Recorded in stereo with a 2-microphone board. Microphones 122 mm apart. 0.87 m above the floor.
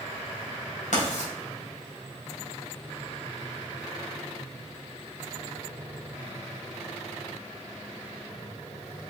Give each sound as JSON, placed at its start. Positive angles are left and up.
{"t": 0.9, "sound": "writing", "side_deg": 85, "distance_m": 3.0}